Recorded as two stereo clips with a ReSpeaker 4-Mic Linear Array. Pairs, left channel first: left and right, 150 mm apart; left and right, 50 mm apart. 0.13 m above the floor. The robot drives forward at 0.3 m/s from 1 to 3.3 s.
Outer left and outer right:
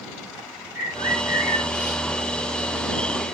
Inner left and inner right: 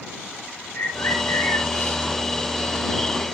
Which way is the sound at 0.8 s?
70° left (ahead or behind).